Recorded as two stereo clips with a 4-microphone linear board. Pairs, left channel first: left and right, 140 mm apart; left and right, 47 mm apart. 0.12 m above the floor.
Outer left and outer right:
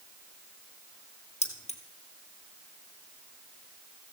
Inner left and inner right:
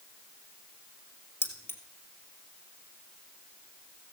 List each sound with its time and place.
1.4 s keys jangling: 50° left (ahead or behind), 2 m